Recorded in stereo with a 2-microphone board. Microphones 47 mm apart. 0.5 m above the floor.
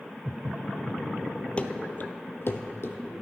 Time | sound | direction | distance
1.6 | running footsteps | 25° left (ahead or behind) | 0.7 m